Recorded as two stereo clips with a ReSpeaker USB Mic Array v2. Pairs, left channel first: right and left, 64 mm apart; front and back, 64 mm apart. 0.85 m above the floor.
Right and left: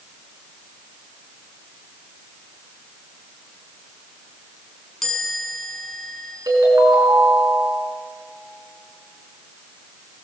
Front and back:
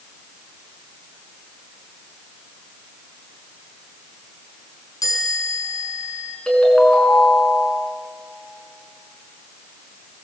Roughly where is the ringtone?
Left.